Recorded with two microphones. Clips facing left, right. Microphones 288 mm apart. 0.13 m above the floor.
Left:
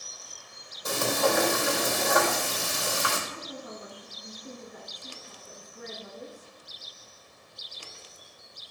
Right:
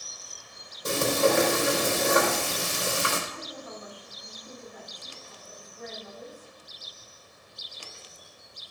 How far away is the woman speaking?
About 3 m.